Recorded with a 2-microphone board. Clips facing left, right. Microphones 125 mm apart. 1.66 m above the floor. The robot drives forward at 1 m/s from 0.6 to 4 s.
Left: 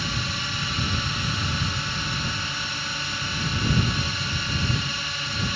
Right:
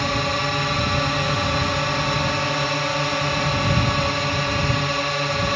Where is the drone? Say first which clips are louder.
Right 9 dB; 60° right (ahead or behind); by 5.6 s 65° right (ahead or behind).